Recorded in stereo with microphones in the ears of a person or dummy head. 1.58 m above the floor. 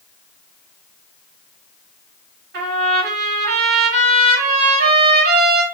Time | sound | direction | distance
2.5 | a trumpet | 65° right (ahead or behind) | 2.5 m